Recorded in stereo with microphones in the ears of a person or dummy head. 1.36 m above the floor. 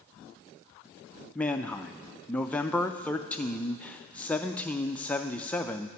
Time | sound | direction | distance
1.4 | a man speaking | 10° left (ahead or behind) | 0.5 m